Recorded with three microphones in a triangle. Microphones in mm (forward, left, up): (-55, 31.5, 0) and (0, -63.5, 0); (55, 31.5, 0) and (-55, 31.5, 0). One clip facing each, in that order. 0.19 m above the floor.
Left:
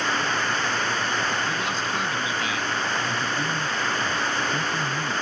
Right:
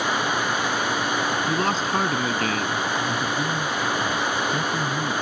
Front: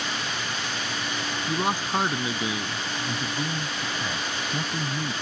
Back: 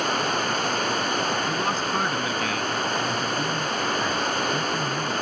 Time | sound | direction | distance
0.0 | running water | 140° right | ?
1.5 | a man speaking | 70° right | ?
3.1 | a man speaking | 55° right | ?